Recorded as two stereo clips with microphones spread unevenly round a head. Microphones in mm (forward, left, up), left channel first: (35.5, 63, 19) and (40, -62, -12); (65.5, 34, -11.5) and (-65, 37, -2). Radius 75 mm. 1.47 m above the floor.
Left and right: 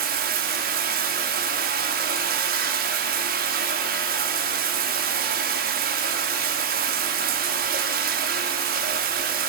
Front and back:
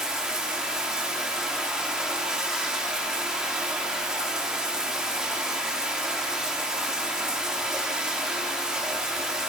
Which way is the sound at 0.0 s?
95° right.